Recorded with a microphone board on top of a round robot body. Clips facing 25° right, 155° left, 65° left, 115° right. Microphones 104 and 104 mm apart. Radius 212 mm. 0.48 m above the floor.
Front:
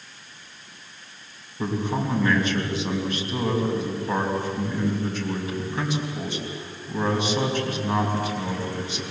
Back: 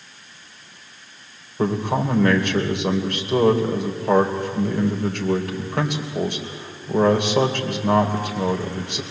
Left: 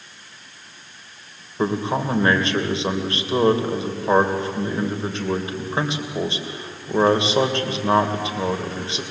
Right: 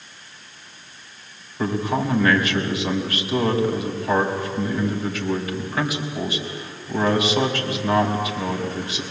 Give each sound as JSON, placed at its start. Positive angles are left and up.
{"t": 1.6, "sound": "a man speaking", "azimuth_deg": 130, "distance_m": 3.0}